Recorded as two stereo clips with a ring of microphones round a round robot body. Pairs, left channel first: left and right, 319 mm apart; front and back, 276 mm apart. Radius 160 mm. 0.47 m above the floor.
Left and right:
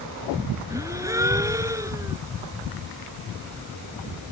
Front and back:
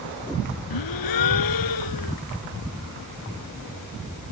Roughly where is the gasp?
Ahead.